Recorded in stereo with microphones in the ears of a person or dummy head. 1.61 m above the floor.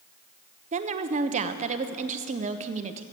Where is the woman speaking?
35° right (ahead or behind), 0.7 m.